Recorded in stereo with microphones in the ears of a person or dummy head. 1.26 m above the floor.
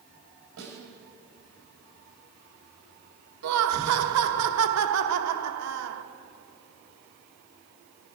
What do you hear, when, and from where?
0.6 s a snare drum: 80° right, 5 m
3.4 s laughter: 80° right, 1.2 m